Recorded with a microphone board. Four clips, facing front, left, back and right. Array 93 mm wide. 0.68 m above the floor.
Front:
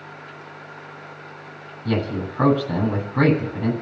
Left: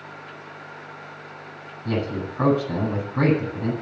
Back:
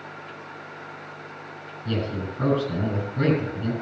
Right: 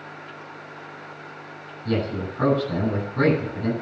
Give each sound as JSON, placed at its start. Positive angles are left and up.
{"t": 1.9, "sound": "a man speaking", "azimuth_deg": 15, "distance_m": 8.5}